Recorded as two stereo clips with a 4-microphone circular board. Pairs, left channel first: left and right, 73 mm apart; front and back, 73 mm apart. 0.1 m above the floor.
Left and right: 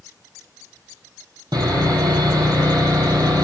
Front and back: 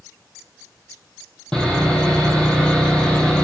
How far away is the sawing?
About 1.1 m.